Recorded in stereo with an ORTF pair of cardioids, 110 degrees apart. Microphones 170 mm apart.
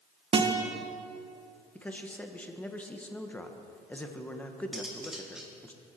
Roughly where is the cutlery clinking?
Ahead.